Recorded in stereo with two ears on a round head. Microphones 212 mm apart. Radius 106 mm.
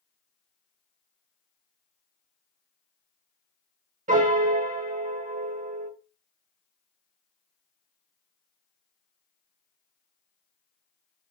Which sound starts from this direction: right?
A piano, at 4.1 s.